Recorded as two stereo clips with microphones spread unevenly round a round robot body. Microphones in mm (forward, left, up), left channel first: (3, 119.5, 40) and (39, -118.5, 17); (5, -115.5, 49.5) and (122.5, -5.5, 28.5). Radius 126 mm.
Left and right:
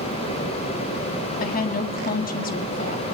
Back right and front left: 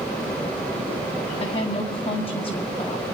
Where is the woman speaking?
155° left, 1.8 m.